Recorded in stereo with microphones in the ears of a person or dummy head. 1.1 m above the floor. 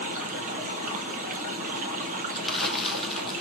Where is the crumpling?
5° left (ahead or behind), 0.7 m.